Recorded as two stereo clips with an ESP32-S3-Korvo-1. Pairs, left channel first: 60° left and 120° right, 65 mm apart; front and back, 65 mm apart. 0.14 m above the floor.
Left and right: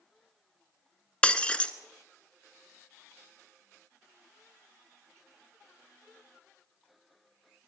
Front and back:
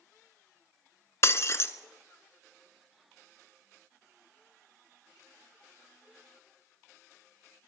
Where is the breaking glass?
5° right, 0.6 m.